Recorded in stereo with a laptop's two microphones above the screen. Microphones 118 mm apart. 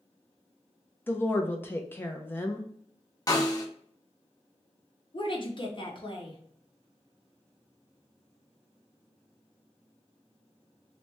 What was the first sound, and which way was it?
A woman speaking, 20° left (ahead or behind).